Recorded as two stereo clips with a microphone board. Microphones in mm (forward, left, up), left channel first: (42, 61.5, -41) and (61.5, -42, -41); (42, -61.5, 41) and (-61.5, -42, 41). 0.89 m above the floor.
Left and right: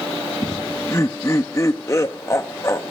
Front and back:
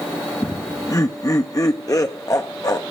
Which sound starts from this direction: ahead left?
Laughter, at 0.4 s.